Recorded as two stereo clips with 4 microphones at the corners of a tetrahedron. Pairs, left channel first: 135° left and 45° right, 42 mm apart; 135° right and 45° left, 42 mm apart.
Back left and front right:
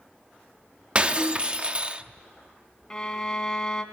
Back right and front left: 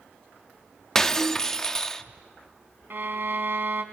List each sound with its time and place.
0.9 s breaking glass: 70° right, 0.8 m
2.9 s a violin: 65° left, 2 m